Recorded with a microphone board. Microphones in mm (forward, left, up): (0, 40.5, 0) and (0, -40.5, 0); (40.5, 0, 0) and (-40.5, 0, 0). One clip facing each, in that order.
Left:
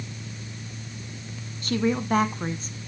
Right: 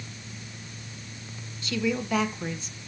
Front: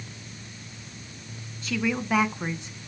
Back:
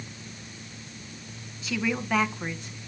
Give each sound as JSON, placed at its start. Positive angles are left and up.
{"t": 1.6, "sound": "a woman speaking", "azimuth_deg": 95, "distance_m": 1.8}